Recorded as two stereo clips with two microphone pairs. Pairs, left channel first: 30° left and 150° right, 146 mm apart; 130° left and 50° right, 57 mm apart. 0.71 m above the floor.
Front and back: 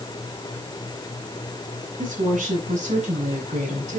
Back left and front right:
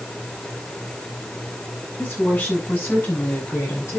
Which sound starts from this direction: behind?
A woman speaking, at 2.0 s.